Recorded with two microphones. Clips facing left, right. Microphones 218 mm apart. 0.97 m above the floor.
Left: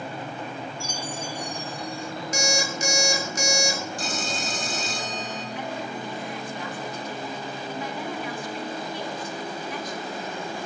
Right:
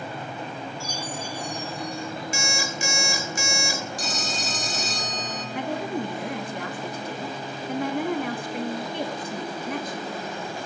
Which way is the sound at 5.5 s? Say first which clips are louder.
Right 8 dB; 65° right (ahead or behind).